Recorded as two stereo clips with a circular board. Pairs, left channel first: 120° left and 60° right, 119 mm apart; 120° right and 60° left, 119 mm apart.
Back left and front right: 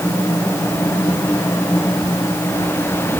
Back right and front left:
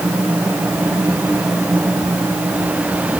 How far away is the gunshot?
No gunshot in this recording.